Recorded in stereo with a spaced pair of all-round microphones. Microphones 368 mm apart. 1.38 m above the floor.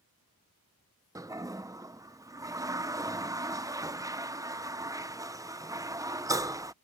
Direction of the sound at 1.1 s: 10° right (ahead or behind).